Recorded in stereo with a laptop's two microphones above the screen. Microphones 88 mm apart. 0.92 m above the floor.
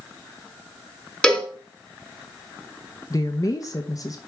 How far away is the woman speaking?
About 0.9 m.